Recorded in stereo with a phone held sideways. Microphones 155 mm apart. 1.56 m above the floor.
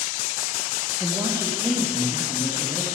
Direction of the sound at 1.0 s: 25° right (ahead or behind).